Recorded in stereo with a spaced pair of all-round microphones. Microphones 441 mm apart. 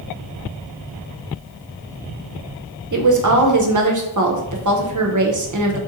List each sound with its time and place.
2.9 s a woman speaking: 45° right (ahead or behind), 0.5 m